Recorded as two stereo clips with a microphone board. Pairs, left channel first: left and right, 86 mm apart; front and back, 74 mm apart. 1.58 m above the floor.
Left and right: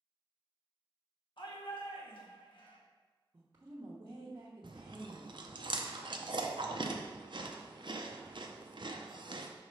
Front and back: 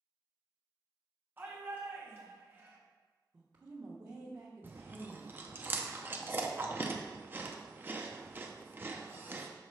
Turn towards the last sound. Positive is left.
turn(degrees=-120)